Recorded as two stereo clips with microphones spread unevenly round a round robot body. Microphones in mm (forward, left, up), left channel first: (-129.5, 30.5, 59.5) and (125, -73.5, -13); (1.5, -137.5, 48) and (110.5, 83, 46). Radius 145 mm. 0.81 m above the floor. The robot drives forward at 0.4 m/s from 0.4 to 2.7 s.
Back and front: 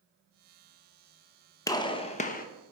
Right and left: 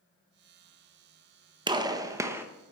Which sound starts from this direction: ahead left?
A gunshot, at 1.7 s.